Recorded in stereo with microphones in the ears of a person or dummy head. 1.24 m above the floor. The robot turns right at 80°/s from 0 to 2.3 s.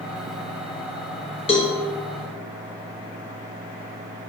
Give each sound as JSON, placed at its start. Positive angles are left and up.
{"t": 1.5, "sound": "a cowbell", "side_deg": 25, "distance_m": 0.9}